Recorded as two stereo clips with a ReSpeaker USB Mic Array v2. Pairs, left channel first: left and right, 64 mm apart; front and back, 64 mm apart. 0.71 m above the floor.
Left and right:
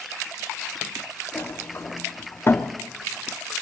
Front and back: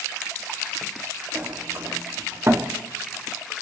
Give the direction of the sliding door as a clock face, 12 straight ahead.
7 o'clock.